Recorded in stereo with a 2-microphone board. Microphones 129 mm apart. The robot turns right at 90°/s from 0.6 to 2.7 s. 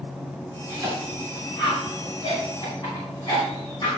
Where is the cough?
40° right (ahead or behind), 3.5 m; by 3.9 s 40° left (ahead or behind), 3.5 m.